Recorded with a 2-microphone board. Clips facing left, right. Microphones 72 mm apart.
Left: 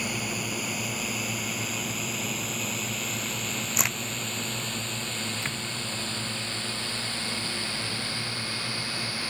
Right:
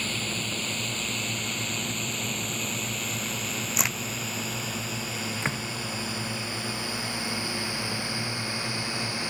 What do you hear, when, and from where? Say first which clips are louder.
0.0 s a drone: left 1 dB; 15° left (ahead or behind); by 9.3 s 20° right (ahead or behind)
3.8 s a crack: even; centre (ahead or behind)
5.4 s a door slam: right 3 dB; 30° right (ahead or behind)